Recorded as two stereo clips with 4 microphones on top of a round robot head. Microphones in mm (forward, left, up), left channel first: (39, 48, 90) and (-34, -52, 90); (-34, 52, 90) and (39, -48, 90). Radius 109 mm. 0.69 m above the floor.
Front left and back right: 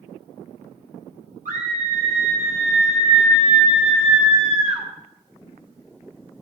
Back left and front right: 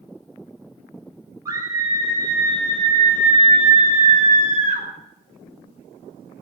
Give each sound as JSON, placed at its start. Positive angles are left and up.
{"t": 1.4, "sound": "a scream", "azimuth_deg": -115, "distance_m": 6.5}